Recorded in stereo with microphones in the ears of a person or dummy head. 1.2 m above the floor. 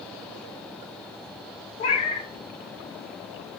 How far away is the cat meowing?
About 0.9 m.